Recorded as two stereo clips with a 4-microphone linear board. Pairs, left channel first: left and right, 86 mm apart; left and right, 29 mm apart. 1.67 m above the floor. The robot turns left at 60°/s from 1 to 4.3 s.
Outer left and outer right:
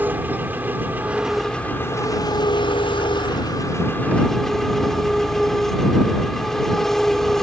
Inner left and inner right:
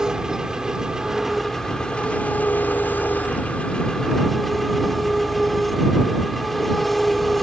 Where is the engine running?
160° right; by 7.4 s 5° left.